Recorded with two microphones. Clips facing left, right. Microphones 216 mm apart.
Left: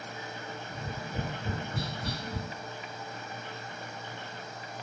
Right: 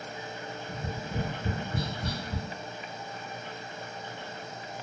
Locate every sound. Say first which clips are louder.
0.7 s tapping: right 4 dB; 30° right (ahead or behind), 1.2 m